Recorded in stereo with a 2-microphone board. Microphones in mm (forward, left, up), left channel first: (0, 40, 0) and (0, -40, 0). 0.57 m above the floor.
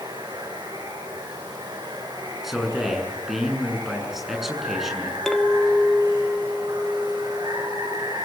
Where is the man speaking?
5° right (ahead or behind), 7.5 m.